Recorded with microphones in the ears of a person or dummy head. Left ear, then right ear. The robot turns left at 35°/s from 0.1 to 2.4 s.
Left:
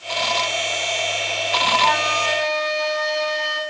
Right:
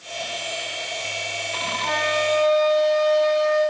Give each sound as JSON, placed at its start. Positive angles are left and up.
{"t": 1.8, "sound": "a flute", "side_deg": 45, "distance_m": 5.0}